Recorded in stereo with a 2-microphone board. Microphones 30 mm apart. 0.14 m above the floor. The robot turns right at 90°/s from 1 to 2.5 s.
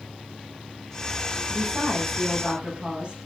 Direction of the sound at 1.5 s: 120° right.